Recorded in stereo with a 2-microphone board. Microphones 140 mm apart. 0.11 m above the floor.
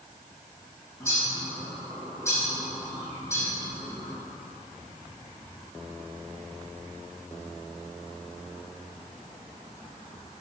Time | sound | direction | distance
1.0 | a bird | 20° left (ahead or behind) | 2.5 m